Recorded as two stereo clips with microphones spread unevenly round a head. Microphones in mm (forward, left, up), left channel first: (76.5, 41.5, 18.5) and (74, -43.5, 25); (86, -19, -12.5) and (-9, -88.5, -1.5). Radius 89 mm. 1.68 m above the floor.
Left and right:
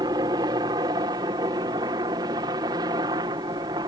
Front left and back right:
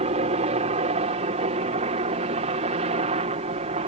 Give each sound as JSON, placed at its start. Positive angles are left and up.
{"t": 0.0, "sound": "a helicopter", "azimuth_deg": -140}